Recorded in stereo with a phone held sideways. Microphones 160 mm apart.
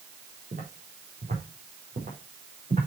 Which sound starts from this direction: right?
Footsteps, at 0.5 s.